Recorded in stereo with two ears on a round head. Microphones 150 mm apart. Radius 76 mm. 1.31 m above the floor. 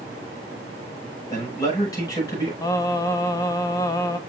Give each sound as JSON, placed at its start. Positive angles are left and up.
{"t": 1.3, "sound": "a man speaking", "side_deg": 20, "distance_m": 6.0}
{"t": 2.6, "sound": "singing", "side_deg": 20, "distance_m": 0.6}